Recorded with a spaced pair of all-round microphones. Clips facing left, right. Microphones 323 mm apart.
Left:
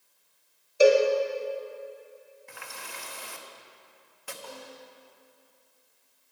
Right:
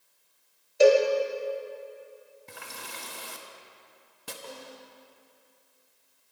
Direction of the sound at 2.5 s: 45° right (ahead or behind).